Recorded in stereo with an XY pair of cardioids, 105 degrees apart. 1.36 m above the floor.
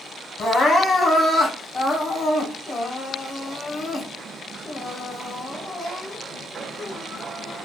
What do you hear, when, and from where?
0.4 s crying: 35° left, 1.1 m